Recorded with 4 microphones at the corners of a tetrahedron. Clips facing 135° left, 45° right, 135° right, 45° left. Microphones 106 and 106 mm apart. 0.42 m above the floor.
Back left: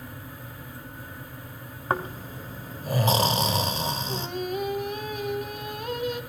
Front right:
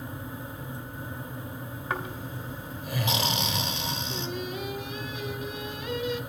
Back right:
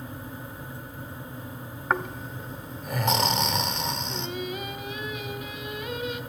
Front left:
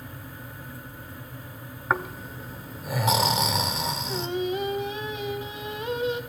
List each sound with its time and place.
1.9 s snoring: 130° left, 1.4 m
4.1 s singing: 100° left, 2 m